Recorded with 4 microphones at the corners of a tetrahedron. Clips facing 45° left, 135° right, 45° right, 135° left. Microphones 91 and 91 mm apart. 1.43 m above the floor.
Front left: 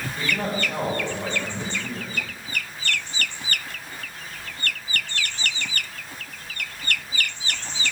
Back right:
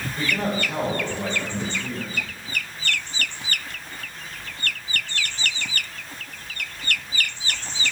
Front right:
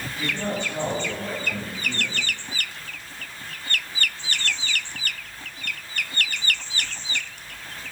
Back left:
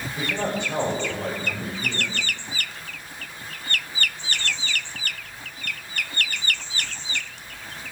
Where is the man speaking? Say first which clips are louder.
Back right 2 dB, back left 1 dB; 140° left, 5.5 m.